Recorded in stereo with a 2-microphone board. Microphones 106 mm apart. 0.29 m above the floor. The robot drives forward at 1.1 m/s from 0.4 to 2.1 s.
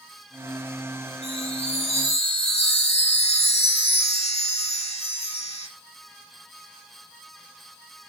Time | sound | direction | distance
1.2 | a chime | 80° left | 9 m